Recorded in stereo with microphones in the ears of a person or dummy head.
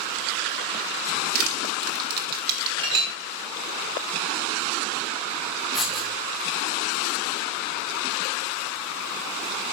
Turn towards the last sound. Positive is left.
turn(degrees=0)  # may be behind; listen again after turning